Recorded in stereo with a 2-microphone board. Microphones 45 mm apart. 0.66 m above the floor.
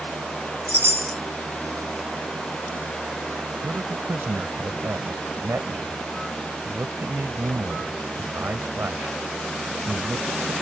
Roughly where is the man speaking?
Right.